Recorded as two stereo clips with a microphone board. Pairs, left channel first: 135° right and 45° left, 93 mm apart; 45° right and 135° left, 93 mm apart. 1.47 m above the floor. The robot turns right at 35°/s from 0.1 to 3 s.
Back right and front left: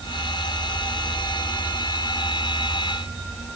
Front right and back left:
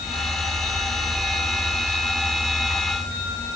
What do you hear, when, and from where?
Only background noise.